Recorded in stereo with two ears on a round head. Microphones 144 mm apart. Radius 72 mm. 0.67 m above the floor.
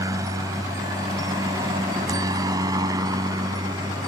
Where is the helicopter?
20° right (ahead or behind).